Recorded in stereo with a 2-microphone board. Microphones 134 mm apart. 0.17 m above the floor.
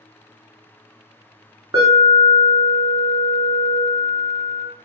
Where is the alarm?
30° right (ahead or behind), 1.0 m.